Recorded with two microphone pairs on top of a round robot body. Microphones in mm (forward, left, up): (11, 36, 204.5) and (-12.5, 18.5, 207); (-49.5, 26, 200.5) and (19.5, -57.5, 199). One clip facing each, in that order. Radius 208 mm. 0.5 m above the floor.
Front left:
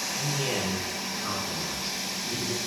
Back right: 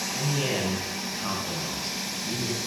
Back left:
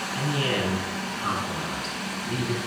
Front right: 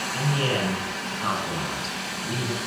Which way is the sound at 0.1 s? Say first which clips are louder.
Back right 2 dB, front right 1 dB; 100° right.